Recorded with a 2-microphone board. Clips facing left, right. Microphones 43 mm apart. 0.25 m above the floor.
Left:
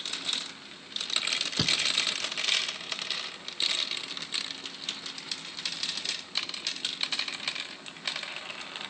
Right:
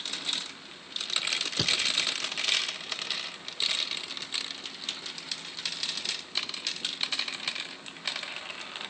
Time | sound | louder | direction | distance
1.6 | a thud | even | 5° left (ahead or behind) | 0.7 m